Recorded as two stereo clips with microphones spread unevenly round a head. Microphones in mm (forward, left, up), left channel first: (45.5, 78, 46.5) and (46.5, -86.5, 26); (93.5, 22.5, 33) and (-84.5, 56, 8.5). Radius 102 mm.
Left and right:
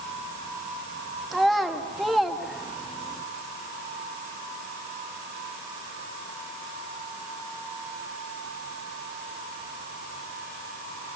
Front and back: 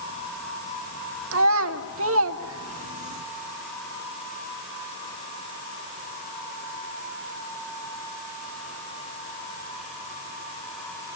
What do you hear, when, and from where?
1.3 s a child speaking: 175° left, 1.6 m